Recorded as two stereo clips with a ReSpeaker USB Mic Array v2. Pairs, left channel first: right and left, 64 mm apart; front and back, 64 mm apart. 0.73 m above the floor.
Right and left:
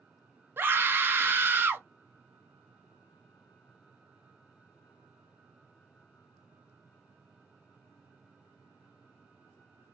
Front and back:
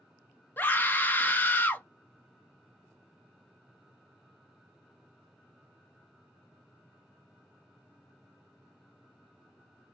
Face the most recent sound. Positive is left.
turn(degrees=50)